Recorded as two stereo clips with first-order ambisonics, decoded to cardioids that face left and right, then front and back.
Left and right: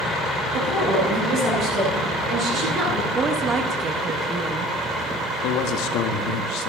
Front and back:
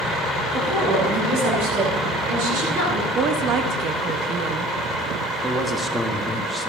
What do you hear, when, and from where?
0.5 s a woman speaking: 150° right, 9.5 m; by 3.0 s 155° right, 11 m
3.1 s a woman speaking: 150° right, 1.0 m
5.4 s a man speaking: 100° left, 1.6 m